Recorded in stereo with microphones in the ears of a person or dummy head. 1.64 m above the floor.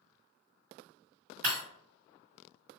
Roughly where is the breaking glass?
Right.